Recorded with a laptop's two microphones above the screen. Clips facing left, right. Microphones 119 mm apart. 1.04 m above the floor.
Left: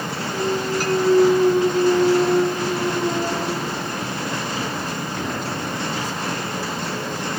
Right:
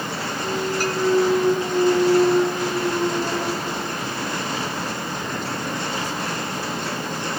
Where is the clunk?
75° left (ahead or behind), 6.5 m.